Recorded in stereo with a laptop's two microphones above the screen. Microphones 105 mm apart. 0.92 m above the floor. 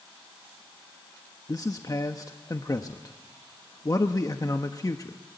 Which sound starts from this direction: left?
A man speaking, at 1.5 s.